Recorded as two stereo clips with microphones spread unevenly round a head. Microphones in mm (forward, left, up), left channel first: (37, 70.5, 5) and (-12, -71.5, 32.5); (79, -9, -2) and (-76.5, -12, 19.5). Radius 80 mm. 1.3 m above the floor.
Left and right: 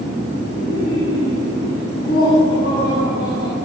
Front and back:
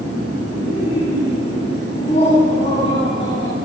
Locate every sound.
0.5 s laughter: 50° left, 9.5 m; by 3.5 s 65° left, 9 m